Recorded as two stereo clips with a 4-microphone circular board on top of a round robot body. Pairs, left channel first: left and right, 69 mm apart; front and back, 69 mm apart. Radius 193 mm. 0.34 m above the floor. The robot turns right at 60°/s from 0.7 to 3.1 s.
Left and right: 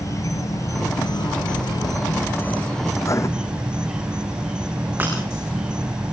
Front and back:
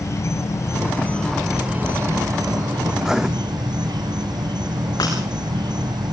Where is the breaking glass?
30° right, 8 m.